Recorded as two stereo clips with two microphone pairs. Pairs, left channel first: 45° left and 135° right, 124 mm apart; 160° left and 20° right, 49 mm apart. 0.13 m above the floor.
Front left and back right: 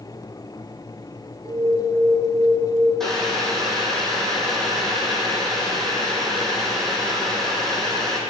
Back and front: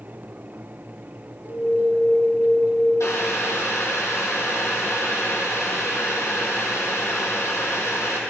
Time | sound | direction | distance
1.4 | an alarm | 170° right | 1.0 m
3.0 | boiling | 135° left | 1.1 m